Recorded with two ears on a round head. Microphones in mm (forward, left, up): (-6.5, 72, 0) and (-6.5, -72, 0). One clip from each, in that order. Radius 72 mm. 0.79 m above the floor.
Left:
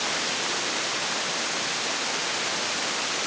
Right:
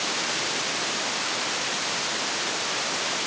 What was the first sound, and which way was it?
Only background noise.